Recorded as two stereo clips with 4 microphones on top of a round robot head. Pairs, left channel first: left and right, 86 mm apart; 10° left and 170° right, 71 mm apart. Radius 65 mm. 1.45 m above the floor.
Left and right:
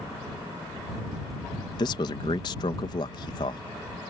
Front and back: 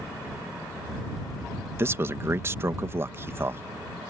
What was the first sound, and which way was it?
A man speaking, 135° left.